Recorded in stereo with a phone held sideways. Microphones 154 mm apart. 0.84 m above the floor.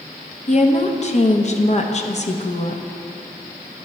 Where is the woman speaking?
45° left (ahead or behind), 0.8 m.